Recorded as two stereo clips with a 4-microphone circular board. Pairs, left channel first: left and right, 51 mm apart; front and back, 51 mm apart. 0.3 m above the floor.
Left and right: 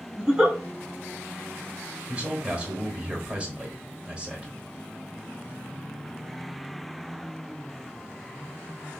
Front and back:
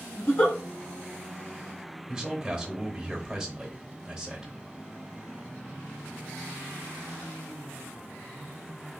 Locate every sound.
0.2 s a giggle: 25° right, 1.0 m
2.1 s a man speaking: 115° right, 0.9 m